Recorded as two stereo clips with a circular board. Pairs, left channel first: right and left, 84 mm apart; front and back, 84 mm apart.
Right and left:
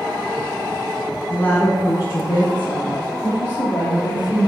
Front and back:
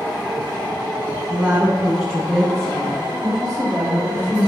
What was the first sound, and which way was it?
A woman speaking, 115° right.